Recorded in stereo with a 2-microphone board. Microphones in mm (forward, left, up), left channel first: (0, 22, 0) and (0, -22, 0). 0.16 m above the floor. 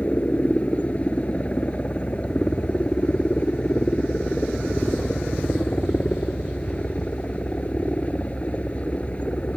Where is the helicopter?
30° left (ahead or behind).